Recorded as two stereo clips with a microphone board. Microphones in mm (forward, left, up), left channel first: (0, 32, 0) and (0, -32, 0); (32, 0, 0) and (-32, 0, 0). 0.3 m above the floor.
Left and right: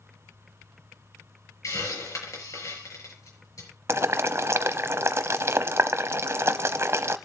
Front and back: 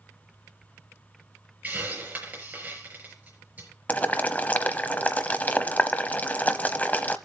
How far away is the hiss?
About 5.5 m.